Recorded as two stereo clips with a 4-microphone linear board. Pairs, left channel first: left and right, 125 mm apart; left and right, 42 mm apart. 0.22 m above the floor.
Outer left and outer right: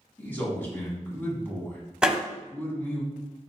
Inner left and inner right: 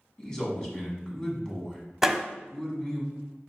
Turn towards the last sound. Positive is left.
turn(degrees=-5)  # may be behind; listen again after turning